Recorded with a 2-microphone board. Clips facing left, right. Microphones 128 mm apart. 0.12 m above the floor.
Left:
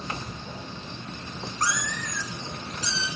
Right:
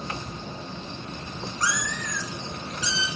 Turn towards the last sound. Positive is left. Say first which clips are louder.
# even
turn(degrees=45)  # may be behind; listen again after turning